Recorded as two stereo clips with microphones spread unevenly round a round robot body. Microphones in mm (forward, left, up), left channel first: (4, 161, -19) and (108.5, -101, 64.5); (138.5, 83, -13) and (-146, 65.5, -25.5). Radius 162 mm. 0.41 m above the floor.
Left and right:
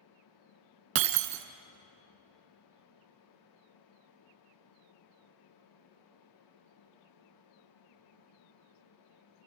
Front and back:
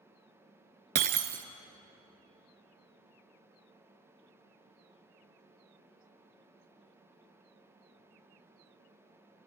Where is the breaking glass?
115° right, 0.8 m.